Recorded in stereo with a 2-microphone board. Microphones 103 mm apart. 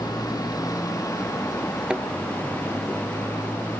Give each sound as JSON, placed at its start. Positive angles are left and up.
{"t": 0.0, "sound": "a motorcycle", "side_deg": 35}
{"t": 1.9, "sound": "a thud", "side_deg": -10}